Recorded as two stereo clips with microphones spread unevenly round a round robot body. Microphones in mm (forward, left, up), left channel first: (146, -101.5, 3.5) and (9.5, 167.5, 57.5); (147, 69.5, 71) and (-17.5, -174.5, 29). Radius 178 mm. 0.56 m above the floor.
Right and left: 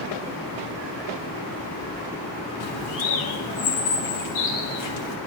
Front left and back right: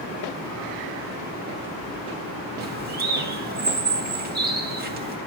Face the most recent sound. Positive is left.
turn(degrees=-70)